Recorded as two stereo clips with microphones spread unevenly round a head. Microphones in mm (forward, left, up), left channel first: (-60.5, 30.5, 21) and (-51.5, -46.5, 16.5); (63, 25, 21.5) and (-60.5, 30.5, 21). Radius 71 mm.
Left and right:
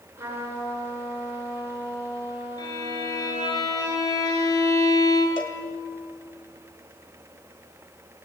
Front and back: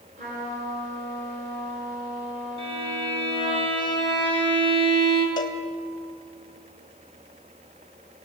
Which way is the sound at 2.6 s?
130° left.